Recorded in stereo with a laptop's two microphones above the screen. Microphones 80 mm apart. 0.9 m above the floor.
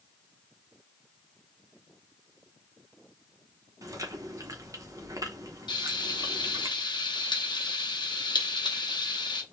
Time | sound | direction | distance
3.8 | chewing | 40° right (ahead or behind) | 0.7 m
5.7 | frying | 60° left (ahead or behind) | 0.6 m